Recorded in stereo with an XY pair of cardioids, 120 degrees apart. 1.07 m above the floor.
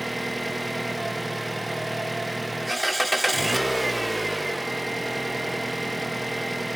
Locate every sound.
0.0 s an engine running: 10° right, 0.8 m